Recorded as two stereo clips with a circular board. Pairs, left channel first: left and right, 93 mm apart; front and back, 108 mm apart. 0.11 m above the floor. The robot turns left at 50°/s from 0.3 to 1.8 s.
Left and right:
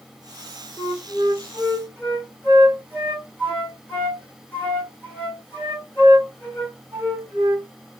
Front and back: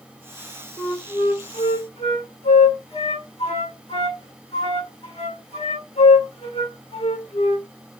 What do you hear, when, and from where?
0.8 s a flute: 70° left, 2.5 m; by 7.7 s 20° left, 2.5 m